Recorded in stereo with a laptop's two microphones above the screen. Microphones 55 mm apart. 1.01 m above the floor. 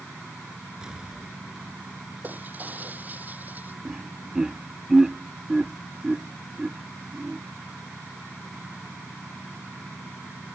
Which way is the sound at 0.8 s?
15° right (ahead or behind).